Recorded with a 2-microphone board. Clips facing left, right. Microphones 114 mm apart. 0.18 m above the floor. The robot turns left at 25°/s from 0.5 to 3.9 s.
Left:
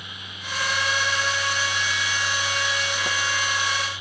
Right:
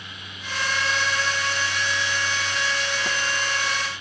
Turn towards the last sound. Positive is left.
No sound to turn to.